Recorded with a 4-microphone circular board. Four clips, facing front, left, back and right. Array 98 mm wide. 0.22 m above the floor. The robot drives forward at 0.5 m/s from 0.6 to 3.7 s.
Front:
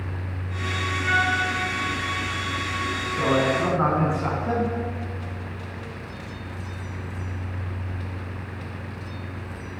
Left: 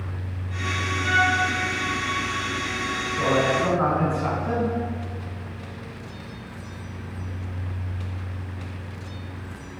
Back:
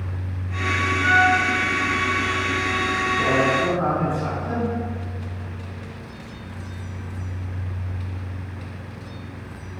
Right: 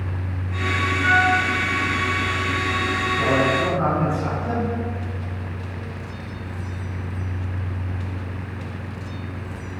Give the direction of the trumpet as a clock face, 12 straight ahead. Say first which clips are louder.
Right 3 dB, back 6 dB; 4 o'clock.